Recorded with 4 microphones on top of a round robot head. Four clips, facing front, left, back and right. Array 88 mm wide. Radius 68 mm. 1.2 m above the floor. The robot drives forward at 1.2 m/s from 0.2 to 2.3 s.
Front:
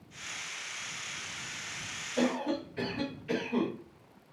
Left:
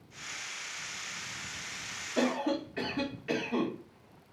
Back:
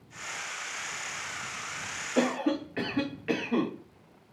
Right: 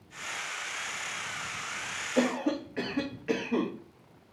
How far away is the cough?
About 1.4 m.